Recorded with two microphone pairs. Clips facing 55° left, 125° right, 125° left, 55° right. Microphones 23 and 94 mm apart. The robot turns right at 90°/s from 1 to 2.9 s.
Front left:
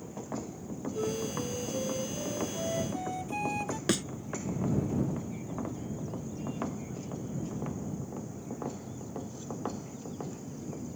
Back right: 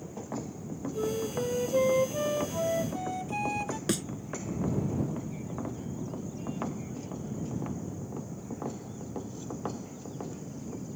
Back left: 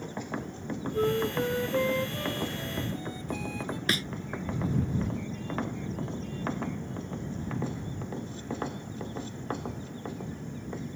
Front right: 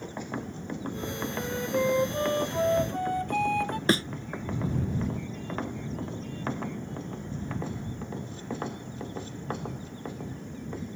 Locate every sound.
0.9 s a flute: 150° left; by 3.8 s 35° right
3.9 s a thud: 10° right